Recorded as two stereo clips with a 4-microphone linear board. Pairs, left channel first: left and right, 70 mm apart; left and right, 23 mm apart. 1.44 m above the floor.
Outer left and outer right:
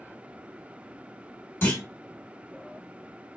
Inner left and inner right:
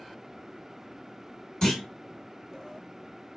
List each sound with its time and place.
1.6 s a clunk: 35° left (ahead or behind), 1.7 m